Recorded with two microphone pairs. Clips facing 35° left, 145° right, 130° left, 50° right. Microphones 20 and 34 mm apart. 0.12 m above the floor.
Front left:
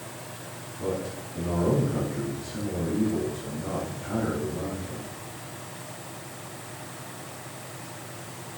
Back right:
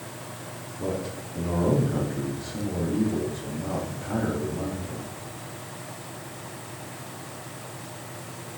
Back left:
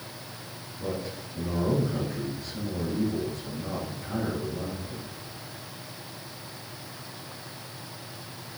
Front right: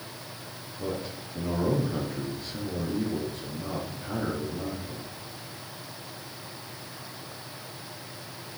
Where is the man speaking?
90° right, 4 m.